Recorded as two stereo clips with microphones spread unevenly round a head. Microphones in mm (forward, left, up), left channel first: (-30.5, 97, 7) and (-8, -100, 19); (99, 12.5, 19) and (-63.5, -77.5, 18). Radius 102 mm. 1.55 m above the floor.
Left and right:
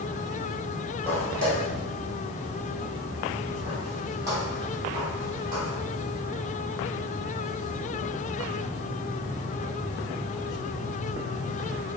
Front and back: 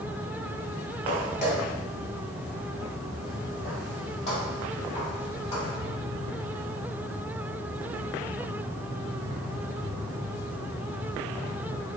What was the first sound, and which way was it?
Footsteps, 15° left.